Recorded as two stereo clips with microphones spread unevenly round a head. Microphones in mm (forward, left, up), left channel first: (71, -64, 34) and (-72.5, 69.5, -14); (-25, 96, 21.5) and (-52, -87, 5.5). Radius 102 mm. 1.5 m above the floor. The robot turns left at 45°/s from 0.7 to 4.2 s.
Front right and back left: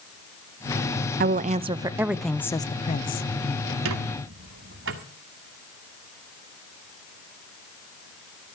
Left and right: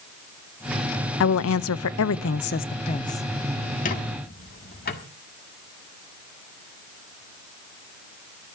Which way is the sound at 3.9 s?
120° left.